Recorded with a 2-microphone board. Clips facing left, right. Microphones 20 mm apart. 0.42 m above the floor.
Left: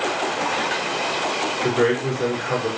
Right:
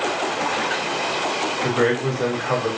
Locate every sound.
1.6 s a man speaking: 55° right (ahead or behind), 1.9 m